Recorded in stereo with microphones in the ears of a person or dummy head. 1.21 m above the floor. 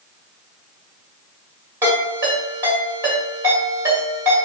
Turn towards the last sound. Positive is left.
turn(degrees=-15)  # may be behind; listen again after turning